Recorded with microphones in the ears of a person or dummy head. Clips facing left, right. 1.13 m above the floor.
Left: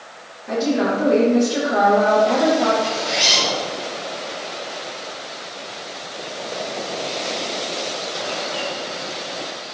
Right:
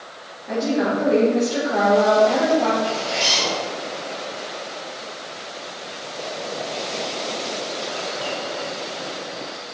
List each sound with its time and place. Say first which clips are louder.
0.5 s a woman speaking: left 2 dB; 5° left (ahead or behind), 2.5 m
2.8 s a zipper: left 1 dB; 35° left (ahead or behind), 3 m